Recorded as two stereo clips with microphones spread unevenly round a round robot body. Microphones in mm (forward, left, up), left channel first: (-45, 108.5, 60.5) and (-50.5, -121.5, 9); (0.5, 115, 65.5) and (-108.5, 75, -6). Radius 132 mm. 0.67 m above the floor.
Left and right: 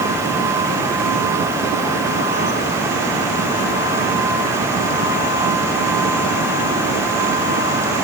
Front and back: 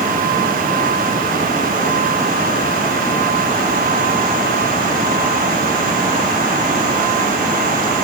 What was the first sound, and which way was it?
Only background noise.